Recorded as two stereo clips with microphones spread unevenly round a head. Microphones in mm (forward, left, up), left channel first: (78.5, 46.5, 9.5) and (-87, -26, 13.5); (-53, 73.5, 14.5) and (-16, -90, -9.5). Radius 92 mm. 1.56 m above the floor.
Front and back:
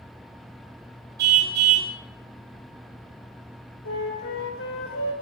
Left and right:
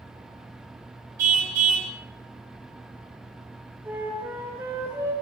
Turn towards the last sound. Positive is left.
turn(degrees=5)